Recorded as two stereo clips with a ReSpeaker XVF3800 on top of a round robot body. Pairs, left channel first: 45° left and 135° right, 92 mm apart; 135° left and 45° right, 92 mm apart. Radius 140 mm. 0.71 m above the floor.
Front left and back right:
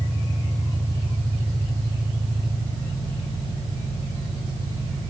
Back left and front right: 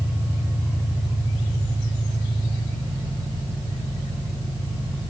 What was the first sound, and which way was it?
An engine running, 115° right.